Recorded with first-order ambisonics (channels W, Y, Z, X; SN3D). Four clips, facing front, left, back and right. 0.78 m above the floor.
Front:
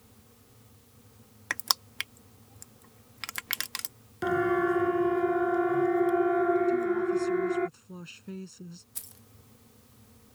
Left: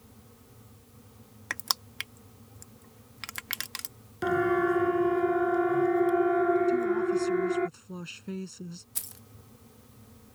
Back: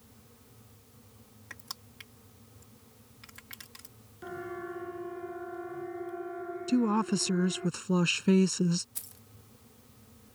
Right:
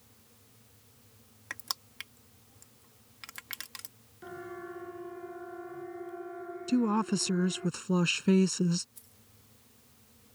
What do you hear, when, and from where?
1.5 s crushing: 25° left
4.2 s a siren: 50° left
6.7 s a woman speaking: 140° right
8.9 s keys jangling: 90° left